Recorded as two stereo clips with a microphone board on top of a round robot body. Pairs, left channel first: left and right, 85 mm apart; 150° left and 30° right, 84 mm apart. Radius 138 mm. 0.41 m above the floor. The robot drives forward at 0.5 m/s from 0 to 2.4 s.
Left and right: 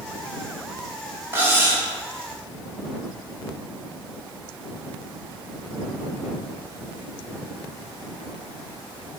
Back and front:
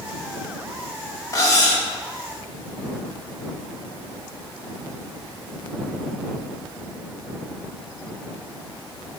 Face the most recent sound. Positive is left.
turn(degrees=-160)